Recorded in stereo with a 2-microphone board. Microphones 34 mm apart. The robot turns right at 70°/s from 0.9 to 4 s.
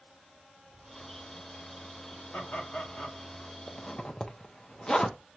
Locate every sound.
2.3 s laughter: 85° left, 2 m; by 3.2 s 150° left, 2 m
3.7 s a zipper: 25° left (ahead or behind), 0.8 m; by 5.2 s 20° left (ahead or behind), 0.8 m